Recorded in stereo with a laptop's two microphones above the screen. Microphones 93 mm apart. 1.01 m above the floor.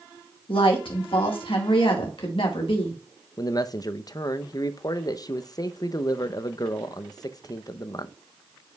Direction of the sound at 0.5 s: 70° left (ahead or behind).